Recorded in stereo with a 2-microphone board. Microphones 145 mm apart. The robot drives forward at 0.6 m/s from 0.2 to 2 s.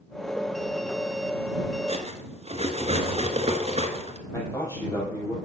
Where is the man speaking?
25° left (ahead or behind), 4.5 m.